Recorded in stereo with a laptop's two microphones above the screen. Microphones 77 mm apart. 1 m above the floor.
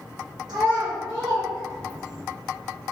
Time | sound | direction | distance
0.5 | a child speaking | 65° right (ahead or behind) | 0.9 m